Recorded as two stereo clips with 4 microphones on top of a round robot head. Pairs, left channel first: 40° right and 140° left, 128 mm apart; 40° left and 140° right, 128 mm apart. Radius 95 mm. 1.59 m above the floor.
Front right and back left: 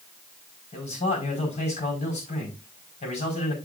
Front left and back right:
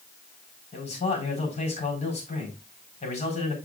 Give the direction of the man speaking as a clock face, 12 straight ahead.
12 o'clock.